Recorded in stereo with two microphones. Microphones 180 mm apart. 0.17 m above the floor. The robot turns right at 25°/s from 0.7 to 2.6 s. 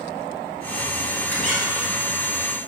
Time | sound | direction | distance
1.3 | a squeak | 10° left (ahead or behind) | 1.1 m